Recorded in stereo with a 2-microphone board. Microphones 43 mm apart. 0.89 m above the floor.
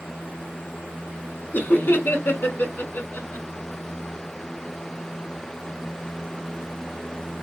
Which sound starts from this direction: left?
Laughter, at 1.5 s.